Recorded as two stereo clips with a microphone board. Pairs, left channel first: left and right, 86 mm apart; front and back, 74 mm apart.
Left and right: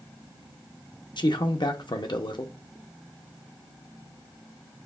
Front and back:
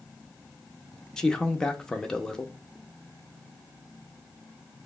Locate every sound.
1.2 s a man speaking: 80° left, 0.6 m